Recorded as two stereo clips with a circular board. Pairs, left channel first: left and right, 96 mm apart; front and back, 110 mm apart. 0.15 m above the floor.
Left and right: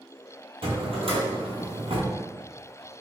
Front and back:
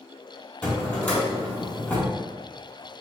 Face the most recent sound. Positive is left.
turn(degrees=-75)